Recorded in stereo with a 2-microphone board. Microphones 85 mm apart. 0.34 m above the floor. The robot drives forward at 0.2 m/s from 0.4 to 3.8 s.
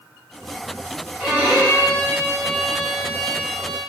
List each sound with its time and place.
1.2 s a violin: 20° right (ahead or behind), 1.5 m; by 3.8 s 30° right (ahead or behind), 1.1 m